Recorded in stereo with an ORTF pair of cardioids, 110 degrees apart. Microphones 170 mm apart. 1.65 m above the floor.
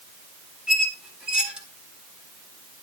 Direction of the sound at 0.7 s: 5° right.